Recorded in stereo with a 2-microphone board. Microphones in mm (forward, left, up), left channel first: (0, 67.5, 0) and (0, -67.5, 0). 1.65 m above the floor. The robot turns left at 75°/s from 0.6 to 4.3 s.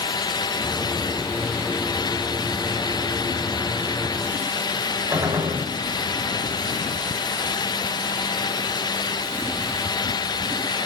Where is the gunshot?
25° right (ahead or behind), 4 m.